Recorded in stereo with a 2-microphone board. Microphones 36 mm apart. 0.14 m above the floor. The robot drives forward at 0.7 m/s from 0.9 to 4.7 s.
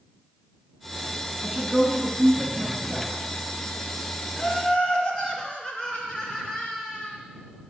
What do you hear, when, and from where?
1.4 s a woman speaking: 10° right (ahead or behind), 1.3 m; by 3.1 s 5° right (ahead or behind), 2 m
4.4 s laughter: 25° left (ahead or behind), 2 m